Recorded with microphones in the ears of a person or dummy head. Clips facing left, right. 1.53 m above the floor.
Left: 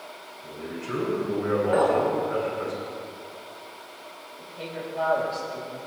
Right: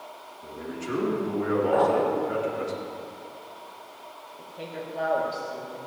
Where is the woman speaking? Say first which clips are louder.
Left 2 dB; 15° right (ahead or behind), 3 m.